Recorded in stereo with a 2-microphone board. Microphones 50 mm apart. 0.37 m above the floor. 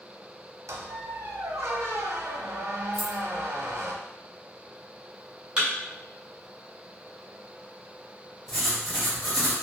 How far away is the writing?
About 1.3 m.